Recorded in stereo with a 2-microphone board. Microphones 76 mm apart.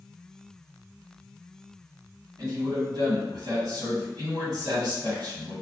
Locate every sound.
2.4 s a man speaking: 75° right (ahead or behind), 1.9 m